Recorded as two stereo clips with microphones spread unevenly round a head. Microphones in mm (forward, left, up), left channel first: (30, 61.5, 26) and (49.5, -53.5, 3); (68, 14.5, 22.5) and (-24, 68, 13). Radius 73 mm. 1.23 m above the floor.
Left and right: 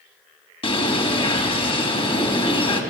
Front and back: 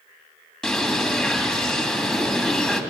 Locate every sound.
0.6 s a bird: 55° left, 2.5 m